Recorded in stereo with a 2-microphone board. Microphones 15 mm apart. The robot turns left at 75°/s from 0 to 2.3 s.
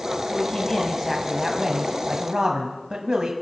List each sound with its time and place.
0.3 s a man speaking: 65° left, 1.6 m; by 3.3 s 90° right, 1.6 m